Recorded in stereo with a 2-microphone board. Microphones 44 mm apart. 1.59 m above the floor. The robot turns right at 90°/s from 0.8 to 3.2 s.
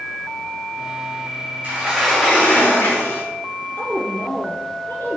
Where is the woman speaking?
50° left (ahead or behind), 3.5 m.